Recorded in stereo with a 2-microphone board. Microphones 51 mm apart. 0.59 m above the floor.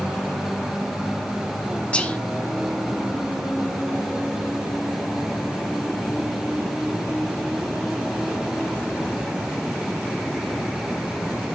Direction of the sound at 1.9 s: 20° left (ahead or behind).